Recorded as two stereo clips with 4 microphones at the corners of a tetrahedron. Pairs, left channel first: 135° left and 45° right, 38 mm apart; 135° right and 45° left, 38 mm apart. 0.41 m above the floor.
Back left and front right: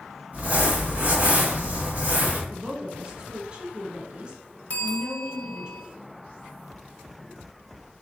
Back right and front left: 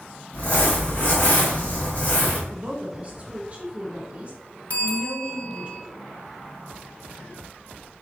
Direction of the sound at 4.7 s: Straight behind.